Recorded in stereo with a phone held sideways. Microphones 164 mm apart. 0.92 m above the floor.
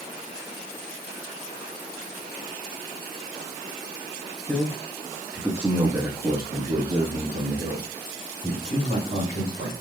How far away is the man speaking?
About 1.1 m.